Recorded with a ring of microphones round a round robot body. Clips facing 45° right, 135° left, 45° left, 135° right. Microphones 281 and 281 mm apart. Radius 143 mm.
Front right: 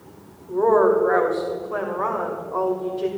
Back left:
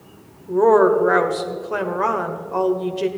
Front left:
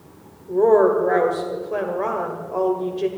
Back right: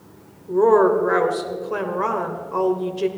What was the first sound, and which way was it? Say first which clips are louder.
A woman speaking: back left 3 dB, even; 160° left.